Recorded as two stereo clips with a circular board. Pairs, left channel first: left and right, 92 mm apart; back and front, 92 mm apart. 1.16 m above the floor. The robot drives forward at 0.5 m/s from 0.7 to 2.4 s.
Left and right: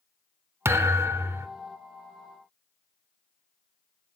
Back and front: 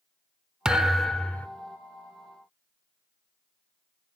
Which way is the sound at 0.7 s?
75° right.